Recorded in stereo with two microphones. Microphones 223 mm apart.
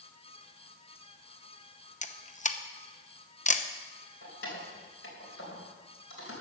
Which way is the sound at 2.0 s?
35° left (ahead or behind).